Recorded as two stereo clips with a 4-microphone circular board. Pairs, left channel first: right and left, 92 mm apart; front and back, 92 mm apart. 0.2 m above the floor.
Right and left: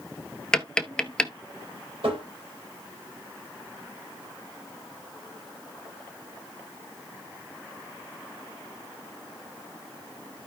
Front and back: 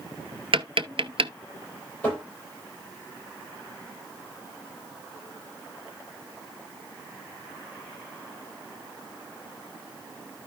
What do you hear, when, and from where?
0.5 s tapping: 170° right, 0.8 m
2.0 s tapping: 70° left, 7 m